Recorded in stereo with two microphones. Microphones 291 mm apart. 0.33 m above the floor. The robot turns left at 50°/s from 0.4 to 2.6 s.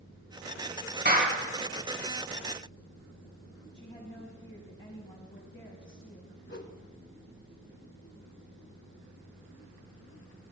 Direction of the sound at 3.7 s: 20° left (ahead or behind).